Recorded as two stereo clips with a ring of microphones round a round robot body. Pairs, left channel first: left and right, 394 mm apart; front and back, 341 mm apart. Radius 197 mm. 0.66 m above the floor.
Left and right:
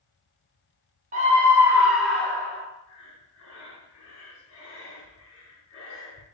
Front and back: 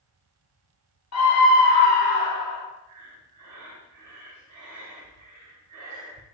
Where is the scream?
25° right, 0.8 m; by 2.6 s 5° left, 1.7 m.